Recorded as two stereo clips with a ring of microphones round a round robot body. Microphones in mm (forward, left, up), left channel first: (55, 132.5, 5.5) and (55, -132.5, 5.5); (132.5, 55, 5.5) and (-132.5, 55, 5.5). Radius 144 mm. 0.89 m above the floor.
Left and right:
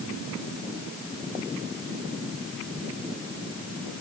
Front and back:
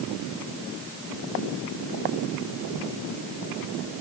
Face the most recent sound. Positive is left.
No sound to turn to.